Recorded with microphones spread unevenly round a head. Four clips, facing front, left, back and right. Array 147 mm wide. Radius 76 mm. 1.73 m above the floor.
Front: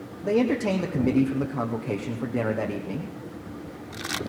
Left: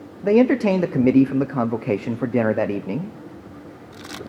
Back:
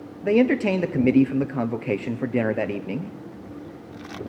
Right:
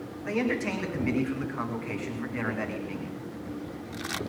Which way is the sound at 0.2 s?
105° left.